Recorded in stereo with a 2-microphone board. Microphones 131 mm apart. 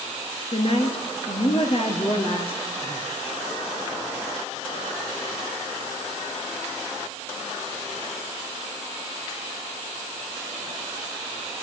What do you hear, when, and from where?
0.5 s a woman speaking: 50° left (ahead or behind), 2.5 m